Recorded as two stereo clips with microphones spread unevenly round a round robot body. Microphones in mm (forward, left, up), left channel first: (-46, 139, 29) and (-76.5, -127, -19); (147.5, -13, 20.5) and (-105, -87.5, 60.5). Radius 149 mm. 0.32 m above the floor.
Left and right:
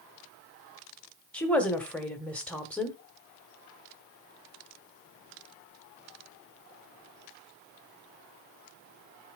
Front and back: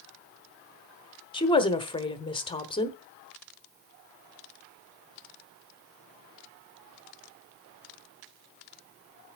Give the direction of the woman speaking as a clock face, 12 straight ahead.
1 o'clock.